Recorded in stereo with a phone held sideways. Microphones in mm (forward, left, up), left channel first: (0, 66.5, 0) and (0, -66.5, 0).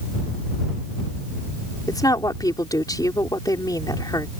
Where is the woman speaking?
30° left (ahead or behind).